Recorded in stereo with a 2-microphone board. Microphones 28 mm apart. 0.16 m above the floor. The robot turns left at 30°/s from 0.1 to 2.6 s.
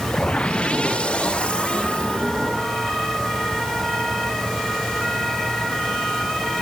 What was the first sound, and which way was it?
Only background noise.